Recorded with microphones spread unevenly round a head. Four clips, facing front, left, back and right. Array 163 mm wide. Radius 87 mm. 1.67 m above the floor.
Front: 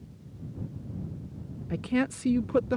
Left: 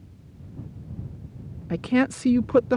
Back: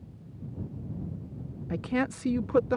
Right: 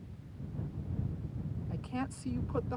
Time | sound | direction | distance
1.7 | a woman speaking | 70° left | ?